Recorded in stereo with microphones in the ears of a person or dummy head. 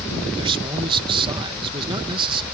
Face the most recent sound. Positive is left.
turn(degrees=-30)  # may be behind; listen again after turning